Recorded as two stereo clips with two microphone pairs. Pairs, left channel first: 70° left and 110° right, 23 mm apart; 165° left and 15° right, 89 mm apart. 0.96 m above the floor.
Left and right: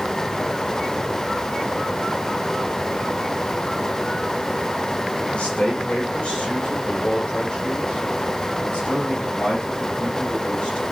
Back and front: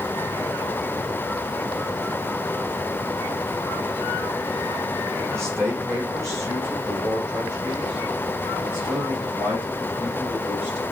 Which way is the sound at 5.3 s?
45° left.